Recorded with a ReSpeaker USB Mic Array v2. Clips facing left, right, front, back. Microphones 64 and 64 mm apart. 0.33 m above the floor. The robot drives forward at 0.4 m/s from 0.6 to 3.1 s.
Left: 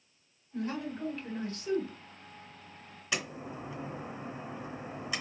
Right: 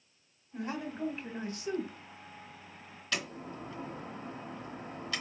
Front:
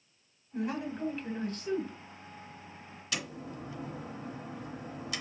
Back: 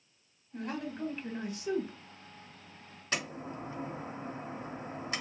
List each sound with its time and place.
0.5 s a man speaking: 65° right, 1.1 m; by 1.9 s 140° right, 1.2 m
3.1 s a door slam: 155° left, 0.8 m